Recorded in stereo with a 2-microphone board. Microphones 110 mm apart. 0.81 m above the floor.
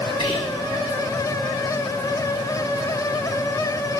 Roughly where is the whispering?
Left.